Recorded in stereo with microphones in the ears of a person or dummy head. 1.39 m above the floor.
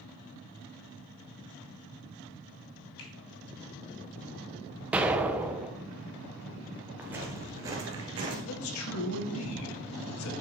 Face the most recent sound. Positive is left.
turn(degrees=65)  # may be behind; listen again after turning